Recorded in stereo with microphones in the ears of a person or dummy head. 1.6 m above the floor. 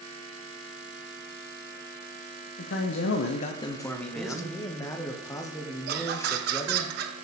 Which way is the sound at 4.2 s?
15° left (ahead or behind).